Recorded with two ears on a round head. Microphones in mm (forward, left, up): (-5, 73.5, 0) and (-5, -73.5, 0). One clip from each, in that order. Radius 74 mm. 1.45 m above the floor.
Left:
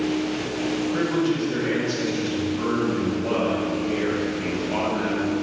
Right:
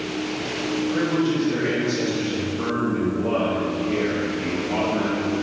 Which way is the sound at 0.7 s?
10° left (ahead or behind).